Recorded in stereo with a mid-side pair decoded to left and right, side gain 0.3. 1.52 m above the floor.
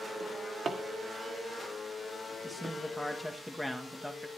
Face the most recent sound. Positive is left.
turn(degrees=0)